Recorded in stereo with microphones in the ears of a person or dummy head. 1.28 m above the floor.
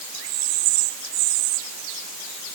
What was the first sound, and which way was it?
Only background noise.